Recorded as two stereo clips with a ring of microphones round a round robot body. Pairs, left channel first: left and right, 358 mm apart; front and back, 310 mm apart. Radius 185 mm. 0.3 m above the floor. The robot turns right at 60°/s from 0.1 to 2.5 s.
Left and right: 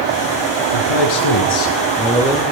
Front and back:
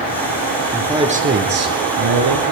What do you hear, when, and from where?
0.7 s a man speaking: 90° left, 4.5 m; by 2.4 s 170° right, 4.5 m